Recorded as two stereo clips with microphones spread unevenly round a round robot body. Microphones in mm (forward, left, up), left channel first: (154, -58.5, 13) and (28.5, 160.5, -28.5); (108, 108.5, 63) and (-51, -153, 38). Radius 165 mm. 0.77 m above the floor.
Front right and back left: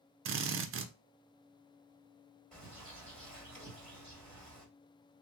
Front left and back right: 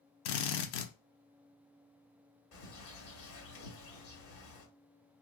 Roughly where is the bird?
Ahead left.